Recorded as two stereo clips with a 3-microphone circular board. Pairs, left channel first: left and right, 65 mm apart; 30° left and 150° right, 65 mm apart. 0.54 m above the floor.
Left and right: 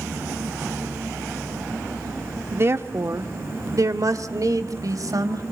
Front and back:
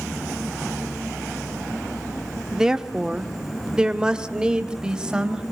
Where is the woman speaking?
75° right, 0.9 m.